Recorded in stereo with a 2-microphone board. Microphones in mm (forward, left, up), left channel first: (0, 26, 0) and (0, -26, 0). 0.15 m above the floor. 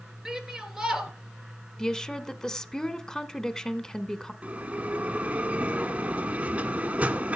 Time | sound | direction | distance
0.2 | a shout | 10° right (ahead or behind) | 3 m
1.8 | a woman speaking | 15° left (ahead or behind) | 1.0 m
4.4 | a bell | 25° right (ahead or behind) | 1.5 m